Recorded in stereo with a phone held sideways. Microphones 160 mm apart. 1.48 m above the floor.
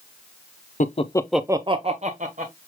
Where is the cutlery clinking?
No cutlery clinking in this recording.